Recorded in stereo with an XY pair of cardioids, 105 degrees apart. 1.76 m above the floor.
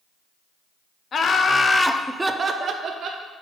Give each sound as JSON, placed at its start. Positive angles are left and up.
{"t": 1.1, "sound": "laughter", "azimuth_deg": 45, "distance_m": 0.8}